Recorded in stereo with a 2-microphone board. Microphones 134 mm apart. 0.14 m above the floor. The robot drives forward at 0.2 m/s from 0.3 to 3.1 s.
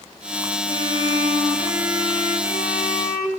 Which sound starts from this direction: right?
A violin, at 0.7 s.